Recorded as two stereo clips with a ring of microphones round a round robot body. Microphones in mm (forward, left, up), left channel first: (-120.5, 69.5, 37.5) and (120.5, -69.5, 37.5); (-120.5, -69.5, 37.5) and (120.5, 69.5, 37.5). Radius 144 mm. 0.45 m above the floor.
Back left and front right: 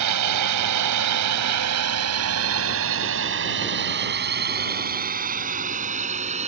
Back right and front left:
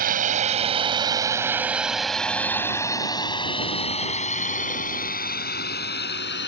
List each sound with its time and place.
0.0 s a drone: 30° right; by 6.5 s 95° right